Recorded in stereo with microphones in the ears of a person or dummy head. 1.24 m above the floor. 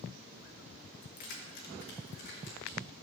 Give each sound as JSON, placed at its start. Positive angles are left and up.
{"t": 1.0, "sound": "keys jangling", "side_deg": 60, "distance_m": 1.0}